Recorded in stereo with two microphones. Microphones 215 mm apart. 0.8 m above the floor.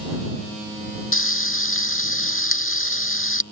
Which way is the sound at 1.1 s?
75° left (ahead or behind).